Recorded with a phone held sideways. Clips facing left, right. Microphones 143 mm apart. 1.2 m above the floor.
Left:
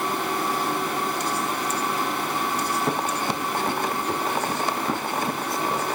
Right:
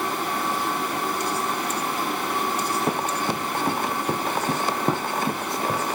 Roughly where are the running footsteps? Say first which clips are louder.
Even; centre.